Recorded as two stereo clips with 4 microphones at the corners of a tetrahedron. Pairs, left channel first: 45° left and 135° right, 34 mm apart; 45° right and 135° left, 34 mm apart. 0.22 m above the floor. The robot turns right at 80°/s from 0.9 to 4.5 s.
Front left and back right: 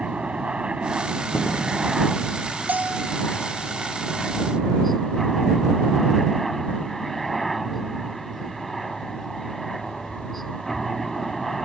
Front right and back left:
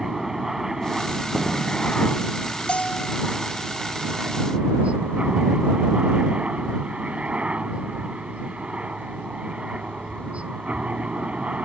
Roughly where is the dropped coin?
No dropped coin in this recording.